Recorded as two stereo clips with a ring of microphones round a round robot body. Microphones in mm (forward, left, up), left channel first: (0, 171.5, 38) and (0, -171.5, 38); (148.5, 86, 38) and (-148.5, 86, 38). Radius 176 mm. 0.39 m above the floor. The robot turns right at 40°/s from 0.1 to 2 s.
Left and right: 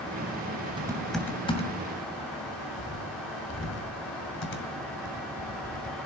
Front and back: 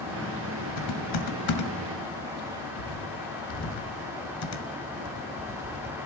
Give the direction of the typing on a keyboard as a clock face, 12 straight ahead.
12 o'clock.